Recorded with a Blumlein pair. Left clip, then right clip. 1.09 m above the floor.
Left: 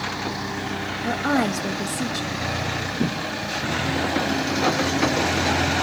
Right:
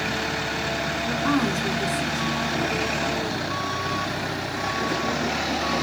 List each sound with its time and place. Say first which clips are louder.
1.0 s a woman speaking: left 3 dB; 45° left, 1.3 m